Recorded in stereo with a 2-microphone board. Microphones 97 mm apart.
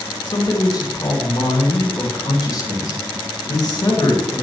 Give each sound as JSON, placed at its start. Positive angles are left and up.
{"t": 0.3, "sound": "a man speaking", "side_deg": 45, "distance_m": 2.5}